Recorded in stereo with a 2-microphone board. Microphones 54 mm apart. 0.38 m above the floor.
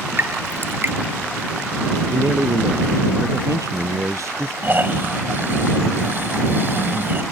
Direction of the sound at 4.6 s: 45° right (ahead or behind).